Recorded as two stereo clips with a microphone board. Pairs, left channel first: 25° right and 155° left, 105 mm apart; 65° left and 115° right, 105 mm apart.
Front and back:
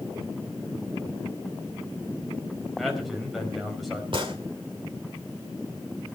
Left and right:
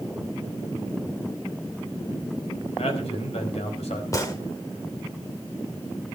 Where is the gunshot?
125° left, 2 m.